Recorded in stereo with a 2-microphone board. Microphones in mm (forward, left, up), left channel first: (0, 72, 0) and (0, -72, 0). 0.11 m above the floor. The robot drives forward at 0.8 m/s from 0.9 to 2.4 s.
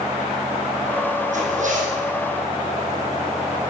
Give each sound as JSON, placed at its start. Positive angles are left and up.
{"t": 1.3, "sound": "a zipper", "side_deg": -60, "distance_m": 5.5}